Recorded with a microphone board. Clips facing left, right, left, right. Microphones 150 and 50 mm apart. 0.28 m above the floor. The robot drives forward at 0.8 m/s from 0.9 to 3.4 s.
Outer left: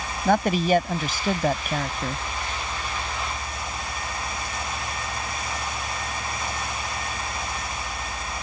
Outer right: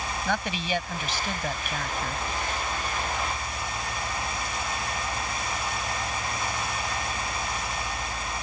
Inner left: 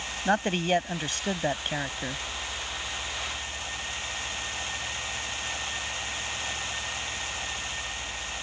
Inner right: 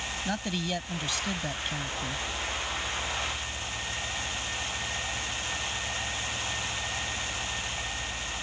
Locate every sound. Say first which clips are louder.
0.2 s a man speaking: outer left 11 dB, inner left 9 dB; 45° left (ahead or behind); by 2.2 s 40° left (ahead or behind)